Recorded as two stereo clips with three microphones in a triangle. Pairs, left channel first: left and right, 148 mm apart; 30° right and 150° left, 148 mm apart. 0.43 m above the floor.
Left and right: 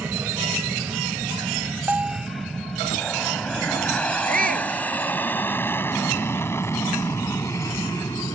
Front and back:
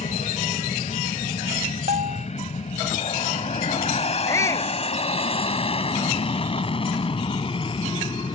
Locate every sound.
0.0 s an aircraft: 15° right; by 8.3 s 25° left
1.9 s a bell: 170° right
4.3 s a shout: 100° right